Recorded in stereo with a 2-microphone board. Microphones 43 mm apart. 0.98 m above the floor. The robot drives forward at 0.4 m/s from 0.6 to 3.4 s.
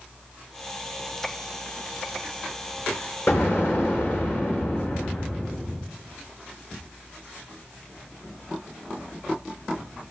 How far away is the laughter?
I don't hear laughter.